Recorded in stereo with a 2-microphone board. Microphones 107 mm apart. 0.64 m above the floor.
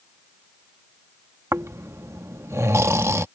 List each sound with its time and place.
1.5 s snoring: 25° right (ahead or behind)